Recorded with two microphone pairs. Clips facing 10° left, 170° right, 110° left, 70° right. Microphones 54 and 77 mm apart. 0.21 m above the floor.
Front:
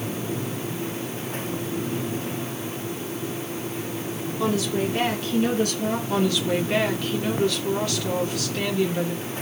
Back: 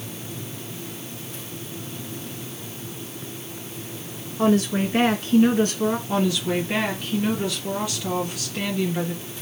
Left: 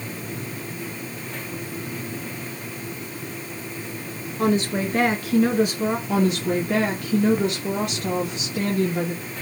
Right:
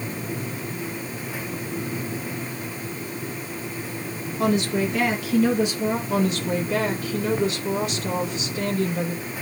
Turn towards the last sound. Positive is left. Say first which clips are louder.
# even, left 2 dB
turn(degrees=110)